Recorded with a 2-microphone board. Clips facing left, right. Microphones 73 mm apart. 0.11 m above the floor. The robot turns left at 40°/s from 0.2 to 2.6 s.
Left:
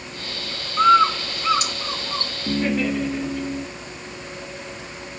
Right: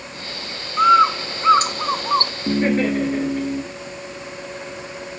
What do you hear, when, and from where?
0.8 s a bird: 5° right (ahead or behind), 0.6 m; by 2.3 s 65° right (ahead or behind), 0.6 m
2.5 s laughter: 40° right (ahead or behind), 1.5 m; by 3.6 s 35° right (ahead or behind), 1.5 m